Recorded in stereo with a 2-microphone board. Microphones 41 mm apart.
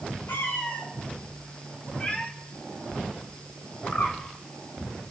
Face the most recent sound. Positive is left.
turn(degrees=60)  # may be behind; listen again after turning